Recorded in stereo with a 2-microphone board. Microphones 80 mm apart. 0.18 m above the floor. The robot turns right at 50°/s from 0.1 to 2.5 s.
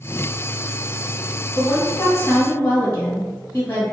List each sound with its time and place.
1.6 s a woman speaking: 25° left (ahead or behind), 1.5 m; by 3.9 s 20° left (ahead or behind), 1.5 m